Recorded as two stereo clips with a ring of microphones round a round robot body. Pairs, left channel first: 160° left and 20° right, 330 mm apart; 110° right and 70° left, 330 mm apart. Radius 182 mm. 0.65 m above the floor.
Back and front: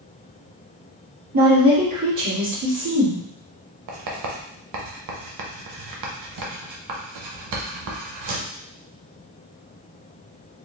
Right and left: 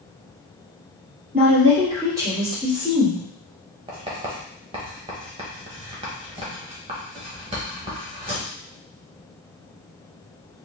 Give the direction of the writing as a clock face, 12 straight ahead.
12 o'clock.